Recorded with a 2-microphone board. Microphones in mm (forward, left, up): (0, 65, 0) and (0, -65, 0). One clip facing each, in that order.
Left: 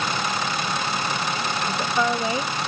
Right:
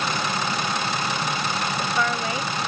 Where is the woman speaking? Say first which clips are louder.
Left 4 dB; 25° left (ahead or behind).